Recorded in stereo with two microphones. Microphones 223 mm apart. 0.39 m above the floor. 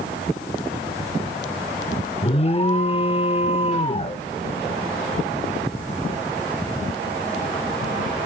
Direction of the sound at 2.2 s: 30° left (ahead or behind).